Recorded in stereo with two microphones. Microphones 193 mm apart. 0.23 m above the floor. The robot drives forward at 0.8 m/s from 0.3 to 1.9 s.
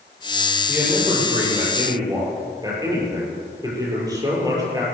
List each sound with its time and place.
0.7 s a man speaking: 15° right (ahead or behind), 8 m; by 4.8 s 20° right (ahead or behind), 7.5 m